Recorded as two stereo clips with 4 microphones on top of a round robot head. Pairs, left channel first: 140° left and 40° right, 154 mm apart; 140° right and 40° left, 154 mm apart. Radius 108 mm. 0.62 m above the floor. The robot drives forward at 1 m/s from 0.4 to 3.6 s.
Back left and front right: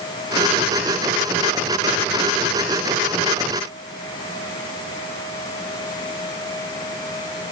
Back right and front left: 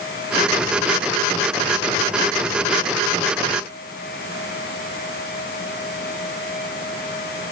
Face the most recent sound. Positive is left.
No sound to turn to.